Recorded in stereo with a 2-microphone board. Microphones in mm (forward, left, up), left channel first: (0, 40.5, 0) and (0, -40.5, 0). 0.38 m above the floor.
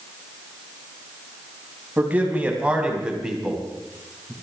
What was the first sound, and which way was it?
A man speaking, 20° right (ahead or behind).